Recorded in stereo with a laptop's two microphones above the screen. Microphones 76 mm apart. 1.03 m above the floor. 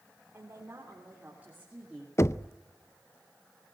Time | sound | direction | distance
0.3 | a woman speaking | 30° right (ahead or behind) | 4 m
2.2 | knocking | 40° left (ahead or behind) | 0.5 m